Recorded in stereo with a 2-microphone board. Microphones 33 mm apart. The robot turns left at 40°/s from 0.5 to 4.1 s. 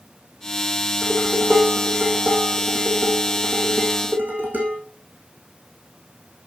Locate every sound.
1.0 s dishes clattering: 15° left, 5 m; by 4.8 s 110° right, 5 m